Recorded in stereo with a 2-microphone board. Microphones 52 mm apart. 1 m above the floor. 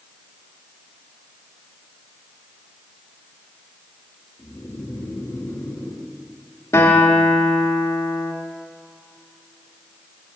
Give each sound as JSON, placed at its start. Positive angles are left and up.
{"t": 4.4, "sound": "snoring", "side_deg": 65, "distance_m": 2.0}
{"t": 6.7, "sound": "a guitar", "side_deg": 65, "distance_m": 1.6}